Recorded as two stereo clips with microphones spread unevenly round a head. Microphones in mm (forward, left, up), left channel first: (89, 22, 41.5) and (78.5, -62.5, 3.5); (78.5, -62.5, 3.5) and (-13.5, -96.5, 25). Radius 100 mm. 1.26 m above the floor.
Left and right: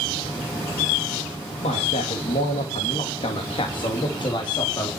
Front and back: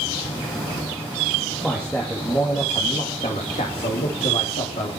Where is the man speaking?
110° left, 2.5 m; by 4.9 s 40° left, 3.5 m.